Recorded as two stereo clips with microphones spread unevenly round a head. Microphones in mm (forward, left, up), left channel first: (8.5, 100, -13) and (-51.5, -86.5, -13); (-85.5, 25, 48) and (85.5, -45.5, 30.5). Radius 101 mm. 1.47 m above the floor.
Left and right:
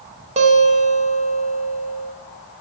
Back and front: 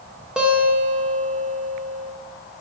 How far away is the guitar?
About 0.8 m.